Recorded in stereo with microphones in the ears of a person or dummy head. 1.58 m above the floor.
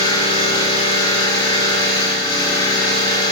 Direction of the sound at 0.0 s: 25° left (ahead or behind).